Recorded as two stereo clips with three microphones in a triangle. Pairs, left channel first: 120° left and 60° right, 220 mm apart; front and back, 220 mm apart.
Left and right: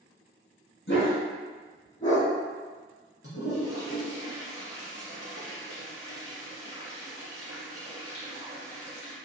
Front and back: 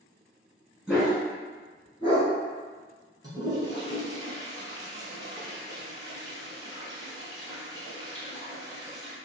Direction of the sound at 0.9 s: 95° left.